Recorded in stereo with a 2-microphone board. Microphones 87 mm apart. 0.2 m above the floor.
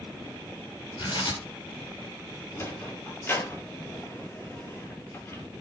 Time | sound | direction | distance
1.0 | tearing paper | 65° left (ahead or behind) | 4.5 m
2.5 | a sliding door | 30° left (ahead or behind) | 1.6 m